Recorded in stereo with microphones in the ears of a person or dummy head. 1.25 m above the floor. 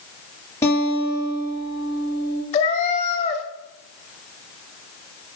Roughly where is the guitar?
Centre.